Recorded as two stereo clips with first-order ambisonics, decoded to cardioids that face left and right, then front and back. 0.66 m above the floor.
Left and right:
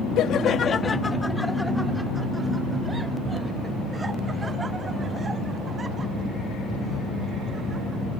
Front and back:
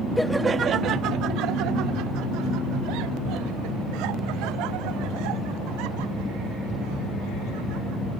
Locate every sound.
0.2 s laughter: 85° left; by 8.0 s 160° right